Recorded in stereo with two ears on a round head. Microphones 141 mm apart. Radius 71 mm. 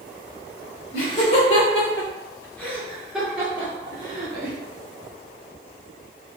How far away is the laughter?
About 1.6 m.